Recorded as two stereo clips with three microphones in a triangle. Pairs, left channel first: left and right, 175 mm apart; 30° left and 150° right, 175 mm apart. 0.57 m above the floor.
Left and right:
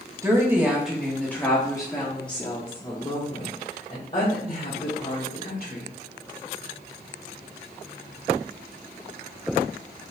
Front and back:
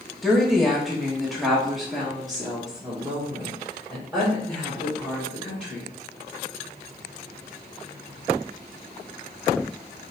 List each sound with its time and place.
0.2 s a woman speaking: 60° right, 1.1 m; by 5.9 s 120° left, 3 m